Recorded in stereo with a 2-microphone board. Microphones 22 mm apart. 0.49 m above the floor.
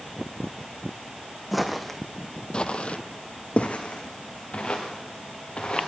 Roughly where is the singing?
No singing in this recording.